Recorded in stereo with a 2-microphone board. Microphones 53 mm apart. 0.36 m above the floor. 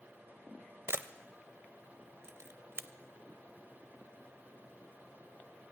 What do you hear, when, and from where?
0.9 s a camera shutter: 55° right (ahead or behind), 0.5 m